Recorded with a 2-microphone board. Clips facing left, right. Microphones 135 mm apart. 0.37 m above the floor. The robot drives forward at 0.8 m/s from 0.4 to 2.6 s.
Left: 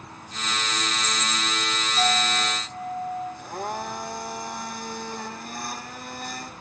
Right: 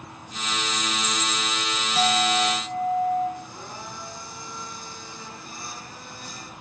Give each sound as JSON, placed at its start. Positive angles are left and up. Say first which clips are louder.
{"t": 1.9, "sound": "a clink", "louder": "right 3 dB", "side_deg": -80, "distance_m": 5.5}
{"t": 3.4, "sound": "a blender", "louder": "left 8 dB", "side_deg": 65, "distance_m": 3.5}